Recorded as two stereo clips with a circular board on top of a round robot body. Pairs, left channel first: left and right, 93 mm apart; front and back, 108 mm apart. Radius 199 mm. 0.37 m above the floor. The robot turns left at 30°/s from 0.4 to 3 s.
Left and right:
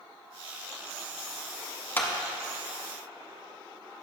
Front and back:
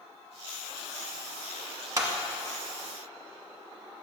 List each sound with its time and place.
2.0 s a clap: 140° left, 1.3 m; by 2.1 s 135° left, 1.3 m